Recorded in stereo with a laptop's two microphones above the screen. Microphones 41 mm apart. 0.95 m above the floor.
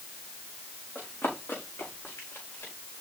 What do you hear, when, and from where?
0.9 s running footsteps: 70° left (ahead or behind), 5 m; by 2.7 s 75° left (ahead or behind), 6 m